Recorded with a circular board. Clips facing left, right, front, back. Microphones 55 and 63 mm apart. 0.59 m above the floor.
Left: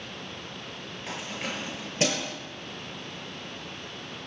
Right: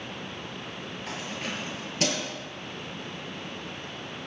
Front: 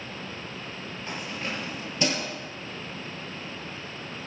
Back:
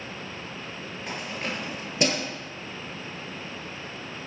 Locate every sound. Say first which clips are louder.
1.1 s keys jangling: left 1 dB, back 1 dB; 165° left, 7 m; by 2.3 s 155° left, 7.5 m